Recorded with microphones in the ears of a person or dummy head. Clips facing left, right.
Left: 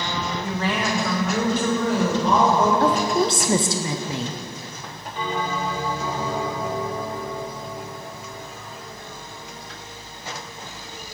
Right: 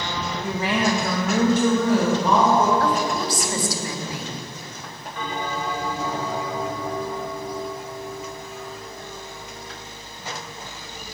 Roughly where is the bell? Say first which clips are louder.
Left 2 dB; left.